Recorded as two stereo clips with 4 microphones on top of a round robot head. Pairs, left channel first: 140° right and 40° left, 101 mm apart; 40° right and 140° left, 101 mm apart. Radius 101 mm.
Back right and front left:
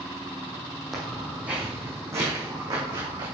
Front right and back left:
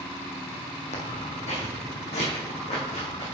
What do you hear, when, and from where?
0.9 s footsteps: 50° right, 2.5 m; by 3.3 s 10° right, 4.5 m